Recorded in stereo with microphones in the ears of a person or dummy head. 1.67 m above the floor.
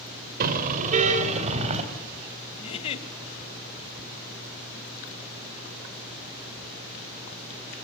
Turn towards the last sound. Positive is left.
turn(degrees=30)  # may be behind; listen again after turning